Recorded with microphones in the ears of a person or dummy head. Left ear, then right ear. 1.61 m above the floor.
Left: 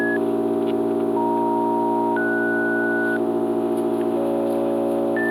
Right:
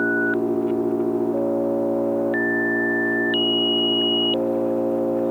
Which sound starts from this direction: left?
An engine running, at 0.0 s.